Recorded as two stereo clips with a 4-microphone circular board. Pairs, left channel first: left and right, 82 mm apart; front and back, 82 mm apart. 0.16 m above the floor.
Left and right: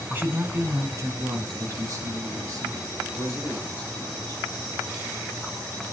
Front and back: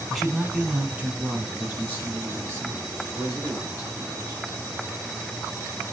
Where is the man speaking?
95° right, 1.2 m; by 4.4 s 125° right, 4 m.